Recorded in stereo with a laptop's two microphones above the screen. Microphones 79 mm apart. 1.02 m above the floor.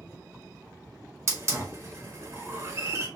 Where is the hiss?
40° right (ahead or behind), 1.3 m.